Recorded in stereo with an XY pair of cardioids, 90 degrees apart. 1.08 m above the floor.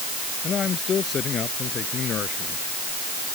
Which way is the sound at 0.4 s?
55° left.